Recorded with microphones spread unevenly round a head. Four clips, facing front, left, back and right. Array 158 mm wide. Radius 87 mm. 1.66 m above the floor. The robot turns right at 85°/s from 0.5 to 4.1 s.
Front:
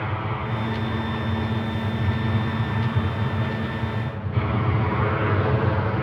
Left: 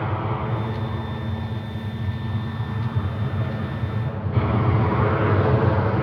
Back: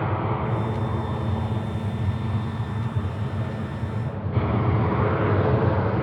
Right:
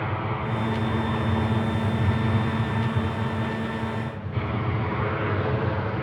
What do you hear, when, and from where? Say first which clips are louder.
0.0 s an aircraft: left 2 dB, back 3 dB; 160° left; by 6.0 s 105° left